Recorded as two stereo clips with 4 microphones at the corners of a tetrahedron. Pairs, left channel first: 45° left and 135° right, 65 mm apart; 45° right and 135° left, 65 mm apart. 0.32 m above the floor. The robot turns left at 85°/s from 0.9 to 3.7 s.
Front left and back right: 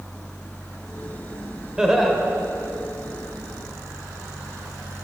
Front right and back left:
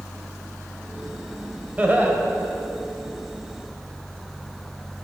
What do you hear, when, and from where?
1.8 s laughter: 160° left, 1.0 m; by 2.2 s 125° left, 1.0 m